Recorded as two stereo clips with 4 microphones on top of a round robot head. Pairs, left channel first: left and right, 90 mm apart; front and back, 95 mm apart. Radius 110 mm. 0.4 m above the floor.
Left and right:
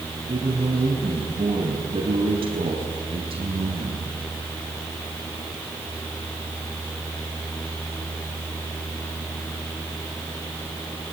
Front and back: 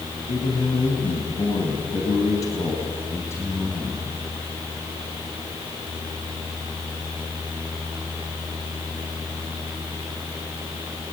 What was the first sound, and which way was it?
A man speaking, 40° right.